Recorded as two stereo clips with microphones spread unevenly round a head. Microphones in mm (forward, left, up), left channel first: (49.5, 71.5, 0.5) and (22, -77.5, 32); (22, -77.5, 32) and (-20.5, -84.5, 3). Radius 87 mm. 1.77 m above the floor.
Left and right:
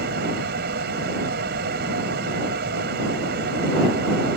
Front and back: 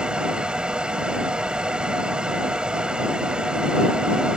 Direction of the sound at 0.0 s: 90° right.